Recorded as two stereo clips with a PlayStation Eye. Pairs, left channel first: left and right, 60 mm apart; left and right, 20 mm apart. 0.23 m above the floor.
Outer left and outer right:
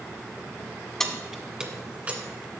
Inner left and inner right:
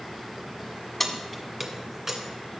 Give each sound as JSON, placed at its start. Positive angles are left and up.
{"t": 1.0, "sound": "keys jangling", "side_deg": 10, "distance_m": 1.2}